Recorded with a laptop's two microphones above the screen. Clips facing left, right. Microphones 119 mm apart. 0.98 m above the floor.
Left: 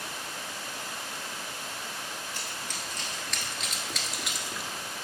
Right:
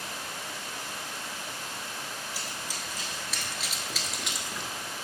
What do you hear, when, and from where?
2.3 s running footsteps: 10° right (ahead or behind), 1.6 m; by 4.7 s 5° left (ahead or behind), 0.9 m